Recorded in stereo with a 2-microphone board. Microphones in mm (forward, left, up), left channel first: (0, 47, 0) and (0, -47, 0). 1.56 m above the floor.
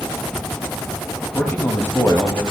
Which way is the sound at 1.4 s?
20° left (ahead or behind).